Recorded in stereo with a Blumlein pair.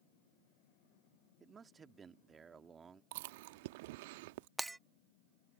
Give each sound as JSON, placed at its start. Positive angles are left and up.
{"t": 1.4, "sound": "a man speaking", "azimuth_deg": -15}
{"t": 3.1, "sound": "chewing", "azimuth_deg": -50}
{"t": 4.6, "sound": "breaking glass", "azimuth_deg": -5}